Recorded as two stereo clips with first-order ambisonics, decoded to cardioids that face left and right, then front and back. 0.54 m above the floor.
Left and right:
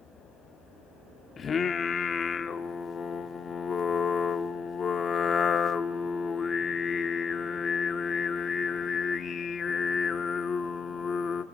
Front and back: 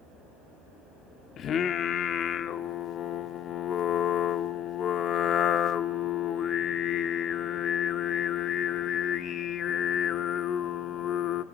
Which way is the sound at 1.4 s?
35° left.